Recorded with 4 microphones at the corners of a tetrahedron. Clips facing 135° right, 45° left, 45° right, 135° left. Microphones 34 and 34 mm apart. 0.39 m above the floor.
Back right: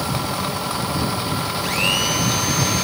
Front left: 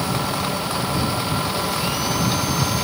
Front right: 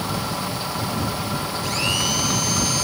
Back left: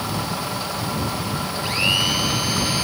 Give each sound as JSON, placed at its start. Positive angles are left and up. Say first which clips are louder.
{"t": 1.6, "sound": "a blender", "louder": "back right 3 dB, back left 4 dB", "azimuth_deg": -155}